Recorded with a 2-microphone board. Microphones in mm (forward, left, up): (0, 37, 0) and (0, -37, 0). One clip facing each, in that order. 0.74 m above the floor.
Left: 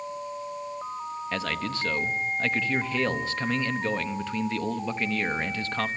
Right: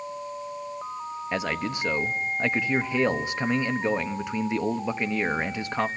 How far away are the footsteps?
I don't hear footsteps.